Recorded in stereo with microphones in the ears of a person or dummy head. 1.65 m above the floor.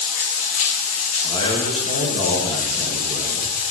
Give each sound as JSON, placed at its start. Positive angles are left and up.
{"t": 0.0, "sound": "running water", "side_deg": 40, "distance_m": 1.2}
{"t": 1.2, "sound": "a man speaking", "side_deg": 30, "distance_m": 2.0}